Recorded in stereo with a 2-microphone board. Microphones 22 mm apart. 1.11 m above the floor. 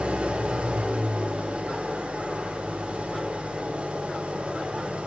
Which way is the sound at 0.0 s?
75° right (ahead or behind).